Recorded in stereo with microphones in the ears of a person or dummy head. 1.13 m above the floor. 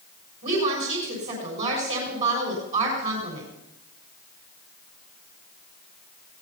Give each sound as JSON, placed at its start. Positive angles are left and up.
{"t": 0.4, "sound": "a woman speaking", "side_deg": -35, "distance_m": 5.5}